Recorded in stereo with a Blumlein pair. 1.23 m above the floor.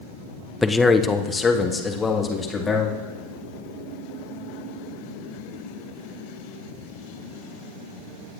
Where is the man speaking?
10° left, 0.6 m; by 3.0 s 15° left, 2 m.